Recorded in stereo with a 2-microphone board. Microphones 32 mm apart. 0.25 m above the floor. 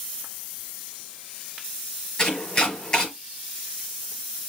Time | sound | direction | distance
2.2 | chopping | 25° left (ahead or behind) | 5.5 m